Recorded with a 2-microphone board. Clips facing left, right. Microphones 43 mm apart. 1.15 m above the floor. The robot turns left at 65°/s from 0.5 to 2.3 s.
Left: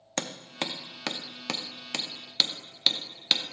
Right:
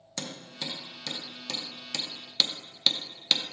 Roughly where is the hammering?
Left.